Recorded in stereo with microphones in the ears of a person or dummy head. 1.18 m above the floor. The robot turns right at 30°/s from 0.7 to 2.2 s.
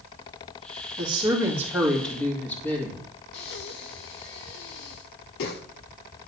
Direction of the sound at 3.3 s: 55° left (ahead or behind).